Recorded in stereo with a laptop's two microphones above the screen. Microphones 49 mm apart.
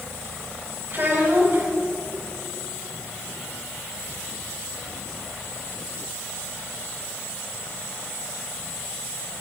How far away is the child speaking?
About 5 m.